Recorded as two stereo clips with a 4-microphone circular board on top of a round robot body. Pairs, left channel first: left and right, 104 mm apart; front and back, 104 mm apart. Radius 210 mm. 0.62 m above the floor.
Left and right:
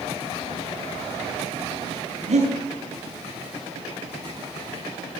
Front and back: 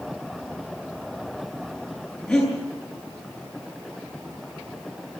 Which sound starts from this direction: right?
Breathing, at 2.3 s.